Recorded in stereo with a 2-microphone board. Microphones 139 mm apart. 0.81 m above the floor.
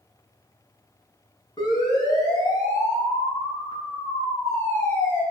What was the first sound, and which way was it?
A siren, 30° left (ahead or behind).